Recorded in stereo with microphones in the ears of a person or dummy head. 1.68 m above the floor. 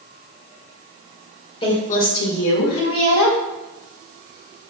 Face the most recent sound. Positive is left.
turn(degrees=75)  # may be behind; listen again after turning